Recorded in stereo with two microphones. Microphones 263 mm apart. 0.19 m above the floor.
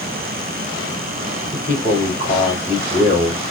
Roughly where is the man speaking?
Left.